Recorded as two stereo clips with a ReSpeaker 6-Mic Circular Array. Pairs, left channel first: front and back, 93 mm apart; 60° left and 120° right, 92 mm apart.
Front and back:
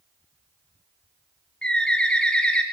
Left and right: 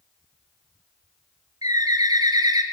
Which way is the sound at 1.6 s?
80° right.